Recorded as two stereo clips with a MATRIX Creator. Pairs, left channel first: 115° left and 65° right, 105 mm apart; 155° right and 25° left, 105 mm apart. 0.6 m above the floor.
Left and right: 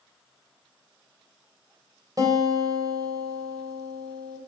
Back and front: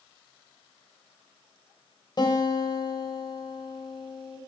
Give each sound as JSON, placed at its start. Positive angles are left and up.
{"t": 2.2, "sound": "a guitar", "azimuth_deg": -115, "distance_m": 3.0}